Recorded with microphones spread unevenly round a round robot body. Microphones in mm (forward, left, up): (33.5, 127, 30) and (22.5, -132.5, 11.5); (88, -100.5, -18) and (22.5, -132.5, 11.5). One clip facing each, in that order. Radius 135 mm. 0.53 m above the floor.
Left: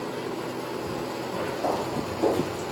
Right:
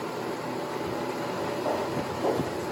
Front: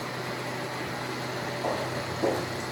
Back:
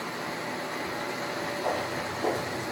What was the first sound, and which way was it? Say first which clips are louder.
Footsteps: left 1 dB, front 1 dB; 90° left.